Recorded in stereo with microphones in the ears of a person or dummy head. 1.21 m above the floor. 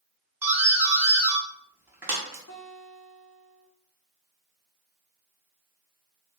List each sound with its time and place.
0.4 s a doorbell: 5° right (ahead or behind), 0.7 m
2.5 s a guitar: 70° left (ahead or behind), 1.1 m